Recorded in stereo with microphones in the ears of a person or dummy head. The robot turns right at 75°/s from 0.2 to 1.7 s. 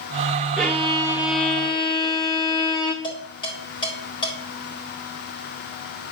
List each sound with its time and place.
0.6 s a violin: 5° right (ahead or behind), 0.9 m; by 2.9 s 20° left (ahead or behind), 0.9 m
3.0 s dishes clattering: 25° left (ahead or behind), 4 m